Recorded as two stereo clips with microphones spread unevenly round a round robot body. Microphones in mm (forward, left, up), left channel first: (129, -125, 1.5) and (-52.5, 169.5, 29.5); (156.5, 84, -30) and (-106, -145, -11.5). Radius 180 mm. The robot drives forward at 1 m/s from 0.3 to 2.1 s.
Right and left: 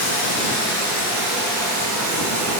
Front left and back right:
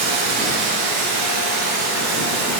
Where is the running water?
100° right, 2.5 m; by 2.6 s 135° right, 3 m.